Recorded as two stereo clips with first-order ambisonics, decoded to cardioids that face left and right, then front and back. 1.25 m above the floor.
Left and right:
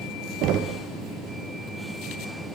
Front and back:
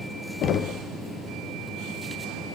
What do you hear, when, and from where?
0.4 s knocking: 50° right, 0.6 m